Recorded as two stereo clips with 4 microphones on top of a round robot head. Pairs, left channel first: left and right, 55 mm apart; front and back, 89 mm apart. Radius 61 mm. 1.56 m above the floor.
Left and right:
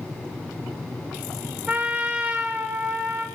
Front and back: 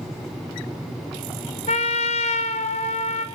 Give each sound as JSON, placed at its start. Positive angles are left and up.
{"t": 1.7, "sound": "a trumpet", "azimuth_deg": -10, "distance_m": 1.4}